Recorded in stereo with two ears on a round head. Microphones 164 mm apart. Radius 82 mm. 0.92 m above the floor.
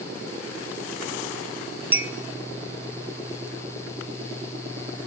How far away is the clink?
About 1.2 m.